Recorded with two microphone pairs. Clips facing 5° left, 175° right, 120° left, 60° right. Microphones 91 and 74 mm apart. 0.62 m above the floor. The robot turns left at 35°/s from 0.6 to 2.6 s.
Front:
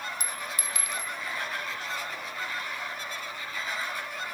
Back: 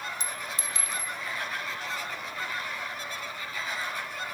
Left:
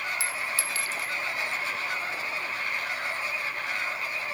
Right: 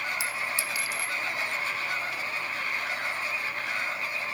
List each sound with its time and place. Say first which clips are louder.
0.2 s a clink: even, even; 120° right, 0.6 m; by 1.1 s 140° right, 0.6 m